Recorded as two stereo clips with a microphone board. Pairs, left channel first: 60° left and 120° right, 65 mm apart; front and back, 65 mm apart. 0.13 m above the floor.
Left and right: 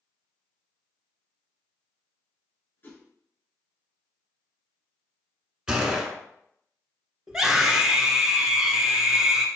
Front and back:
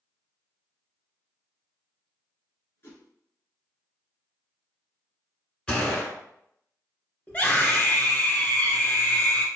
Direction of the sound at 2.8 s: 25° left.